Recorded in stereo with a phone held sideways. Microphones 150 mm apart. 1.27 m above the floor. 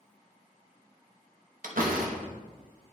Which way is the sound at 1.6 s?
65° right (ahead or behind).